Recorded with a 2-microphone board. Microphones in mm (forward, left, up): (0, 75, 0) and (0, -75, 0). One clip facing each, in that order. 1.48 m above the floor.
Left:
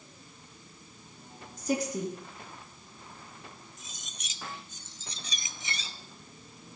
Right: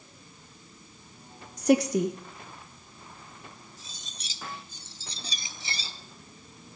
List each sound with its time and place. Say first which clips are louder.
1.6 s a woman speaking: right 8 dB; 70° right (ahead or behind), 0.9 m
3.8 s cutlery clinking: right 1 dB; 30° right (ahead or behind), 0.8 m